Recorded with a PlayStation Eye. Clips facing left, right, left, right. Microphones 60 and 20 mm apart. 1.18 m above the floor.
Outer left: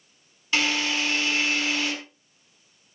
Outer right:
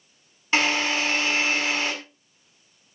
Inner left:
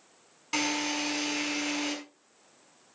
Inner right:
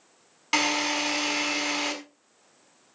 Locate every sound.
0.5 s a drill: 45° right (ahead or behind), 5.5 m